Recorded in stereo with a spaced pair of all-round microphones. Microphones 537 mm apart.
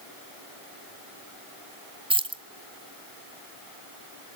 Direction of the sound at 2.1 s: 10° right (ahead or behind).